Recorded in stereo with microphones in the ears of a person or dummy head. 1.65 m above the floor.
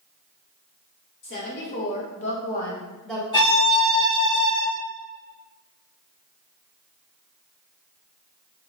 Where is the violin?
35° left (ahead or behind), 1.5 m.